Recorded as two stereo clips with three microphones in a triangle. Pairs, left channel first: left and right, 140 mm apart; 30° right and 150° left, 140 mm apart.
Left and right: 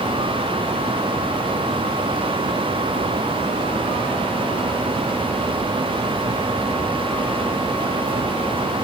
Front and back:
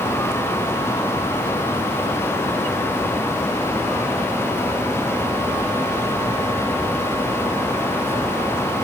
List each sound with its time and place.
Only background noise.